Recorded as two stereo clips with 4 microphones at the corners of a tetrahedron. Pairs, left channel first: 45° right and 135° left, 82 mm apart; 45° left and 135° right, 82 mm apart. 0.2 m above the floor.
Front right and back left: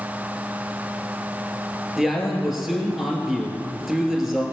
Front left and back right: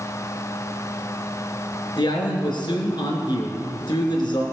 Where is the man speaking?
50° left, 2.5 m.